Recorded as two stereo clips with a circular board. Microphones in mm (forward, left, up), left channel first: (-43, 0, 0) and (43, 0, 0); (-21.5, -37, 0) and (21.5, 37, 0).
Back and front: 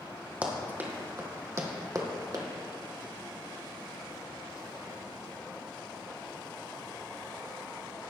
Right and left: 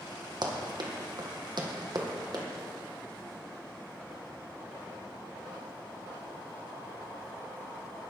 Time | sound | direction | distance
0.4 | running footsteps | 70° left | 2.0 m